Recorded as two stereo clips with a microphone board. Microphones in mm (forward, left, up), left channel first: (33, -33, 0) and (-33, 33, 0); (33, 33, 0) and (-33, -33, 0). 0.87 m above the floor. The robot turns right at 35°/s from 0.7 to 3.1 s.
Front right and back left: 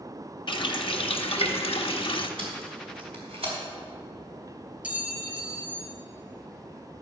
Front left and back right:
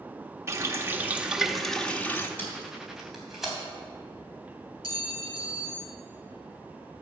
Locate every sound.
0.5 s a running tap: 75° right, 0.9 m; by 2.3 s 20° right, 0.9 m
2.4 s tape being pulled: 115° left, 3.5 m; by 3.5 s 140° left, 3.5 m
4.8 s a clink: 155° right, 2 m